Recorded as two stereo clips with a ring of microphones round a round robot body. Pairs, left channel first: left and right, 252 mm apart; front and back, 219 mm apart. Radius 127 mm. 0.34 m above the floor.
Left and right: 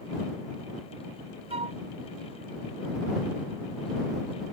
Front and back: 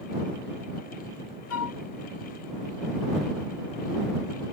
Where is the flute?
20° right.